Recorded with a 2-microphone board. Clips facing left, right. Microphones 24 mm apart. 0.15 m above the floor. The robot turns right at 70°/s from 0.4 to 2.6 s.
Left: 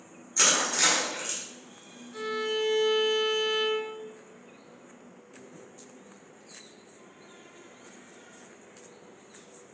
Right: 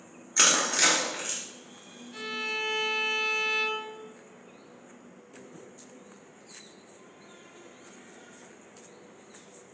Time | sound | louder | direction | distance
0.4 | crushing | right 1 dB | 20° right (ahead or behind) | 1.8 m
2.1 | a violin | left 2 dB | 145° right | 1.8 m